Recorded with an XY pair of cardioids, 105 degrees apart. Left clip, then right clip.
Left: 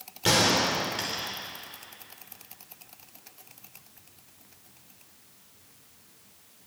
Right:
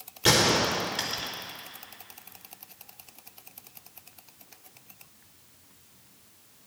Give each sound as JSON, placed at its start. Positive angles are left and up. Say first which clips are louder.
{"t": 0.2, "sound": "a gunshot", "louder": "right 1 dB", "azimuth_deg": -20, "distance_m": 4.0}